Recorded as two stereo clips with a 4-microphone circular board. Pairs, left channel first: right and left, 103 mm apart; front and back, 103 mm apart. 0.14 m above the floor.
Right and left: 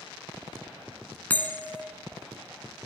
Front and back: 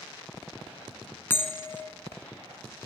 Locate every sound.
1.3 s a bell: 40° right, 1.4 m